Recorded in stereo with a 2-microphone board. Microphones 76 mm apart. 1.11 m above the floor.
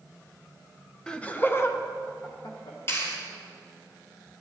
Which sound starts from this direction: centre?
Laughter, at 1.1 s.